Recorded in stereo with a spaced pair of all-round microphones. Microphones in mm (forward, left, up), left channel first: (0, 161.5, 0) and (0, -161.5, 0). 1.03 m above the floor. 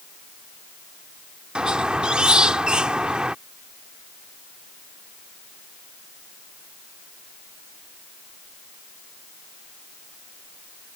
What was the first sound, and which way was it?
A squeak, 5° right (ahead or behind).